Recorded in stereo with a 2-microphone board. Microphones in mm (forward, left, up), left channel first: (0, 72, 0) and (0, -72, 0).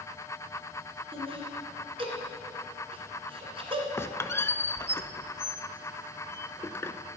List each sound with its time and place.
1.1 s laughter: 40° right (ahead or behind), 2 m
4.0 s a squeak: 20° left (ahead or behind), 0.5 m